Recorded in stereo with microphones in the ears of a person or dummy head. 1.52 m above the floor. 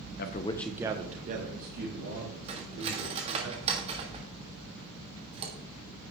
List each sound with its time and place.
0.2 s a man speaking: 55° left (ahead or behind), 0.9 m; by 3.5 s 60° right (ahead or behind), 4.5 m
2.5 s cutlery clinking: 30° right (ahead or behind), 1.5 m